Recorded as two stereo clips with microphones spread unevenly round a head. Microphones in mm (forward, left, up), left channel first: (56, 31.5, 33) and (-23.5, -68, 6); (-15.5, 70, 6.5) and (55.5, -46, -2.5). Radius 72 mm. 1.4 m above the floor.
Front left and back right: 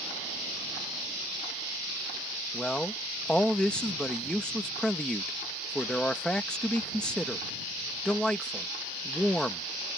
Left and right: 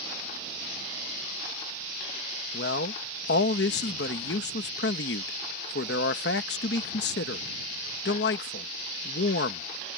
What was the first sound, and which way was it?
A man speaking, 135° left.